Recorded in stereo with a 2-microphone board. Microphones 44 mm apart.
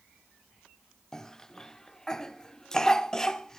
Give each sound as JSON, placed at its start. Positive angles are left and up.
{"t": 1.1, "sound": "a cough", "side_deg": 15, "distance_m": 0.8}